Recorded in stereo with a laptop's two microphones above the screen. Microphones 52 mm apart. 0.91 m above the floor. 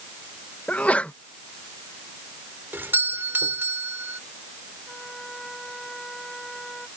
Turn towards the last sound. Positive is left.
turn(degrees=5)  # may be behind; listen again after turning